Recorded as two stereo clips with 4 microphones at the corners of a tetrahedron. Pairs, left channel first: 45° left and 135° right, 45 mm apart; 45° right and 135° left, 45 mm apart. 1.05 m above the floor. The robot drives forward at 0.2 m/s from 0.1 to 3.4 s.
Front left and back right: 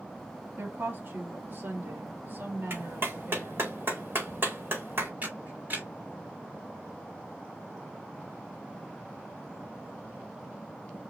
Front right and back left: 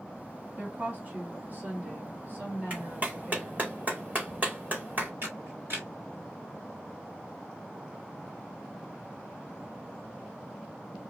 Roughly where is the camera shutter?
Behind.